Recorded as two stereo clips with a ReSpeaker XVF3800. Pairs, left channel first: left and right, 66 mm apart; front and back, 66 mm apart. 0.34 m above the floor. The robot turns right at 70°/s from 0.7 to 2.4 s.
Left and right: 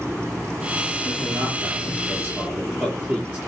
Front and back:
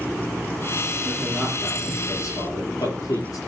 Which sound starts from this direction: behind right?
A man speaking, at 1.1 s.